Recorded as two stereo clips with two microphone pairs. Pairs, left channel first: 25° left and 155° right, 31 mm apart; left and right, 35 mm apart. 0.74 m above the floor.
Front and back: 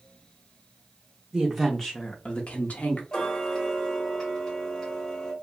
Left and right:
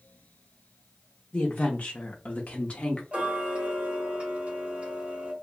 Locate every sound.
1.3 s a woman speaking: 135° left, 0.7 m; by 3.0 s 40° left, 0.8 m
3.1 s ticking: 40° right, 1.2 m